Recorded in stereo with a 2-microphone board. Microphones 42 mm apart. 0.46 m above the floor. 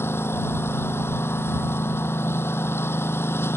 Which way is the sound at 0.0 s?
80° left.